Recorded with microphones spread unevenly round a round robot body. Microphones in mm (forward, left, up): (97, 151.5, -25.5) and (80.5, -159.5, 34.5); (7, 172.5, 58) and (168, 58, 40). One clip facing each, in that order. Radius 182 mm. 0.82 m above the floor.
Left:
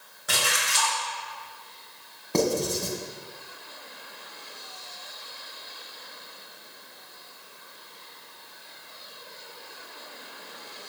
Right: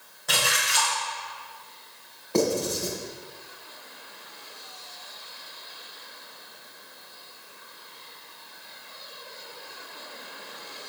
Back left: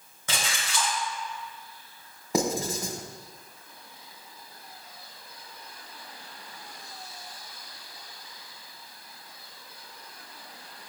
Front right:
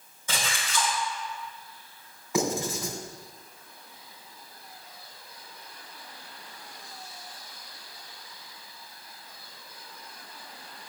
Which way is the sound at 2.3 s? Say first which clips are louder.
Right 1 dB, back left 1 dB; 95° left.